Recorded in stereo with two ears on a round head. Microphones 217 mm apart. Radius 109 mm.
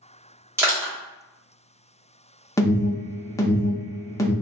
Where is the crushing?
10° right (ahead or behind), 1.2 m.